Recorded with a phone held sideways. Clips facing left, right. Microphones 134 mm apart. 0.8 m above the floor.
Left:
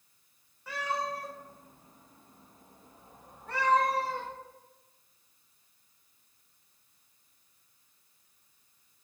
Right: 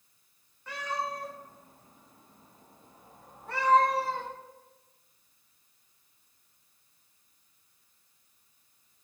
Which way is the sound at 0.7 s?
5° left (ahead or behind).